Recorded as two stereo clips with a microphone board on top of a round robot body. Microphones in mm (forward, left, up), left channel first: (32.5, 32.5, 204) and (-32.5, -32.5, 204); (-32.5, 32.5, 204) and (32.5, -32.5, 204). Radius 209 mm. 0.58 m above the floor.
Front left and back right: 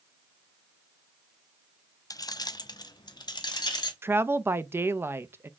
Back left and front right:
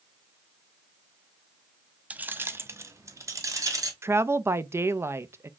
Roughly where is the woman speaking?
Right.